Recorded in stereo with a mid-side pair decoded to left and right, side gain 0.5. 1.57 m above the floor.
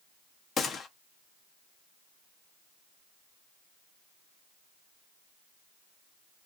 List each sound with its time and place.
0.6 s a gunshot: 45° left, 0.8 m